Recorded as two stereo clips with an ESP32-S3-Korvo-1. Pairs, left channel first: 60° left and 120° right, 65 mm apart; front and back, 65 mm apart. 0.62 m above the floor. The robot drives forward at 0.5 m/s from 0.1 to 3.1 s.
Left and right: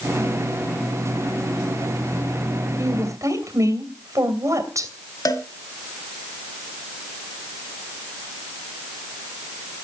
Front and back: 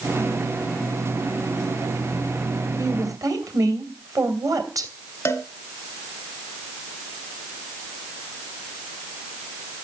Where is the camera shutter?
I don't hear a camera shutter.